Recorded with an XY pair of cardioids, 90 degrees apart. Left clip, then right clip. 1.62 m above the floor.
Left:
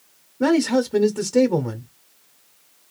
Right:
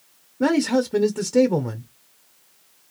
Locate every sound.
0.4 s a man speaking: 10° right, 0.6 m